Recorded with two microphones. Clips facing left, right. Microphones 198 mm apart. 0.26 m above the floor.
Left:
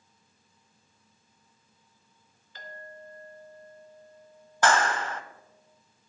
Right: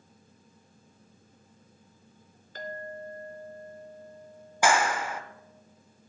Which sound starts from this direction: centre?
A clap, at 4.6 s.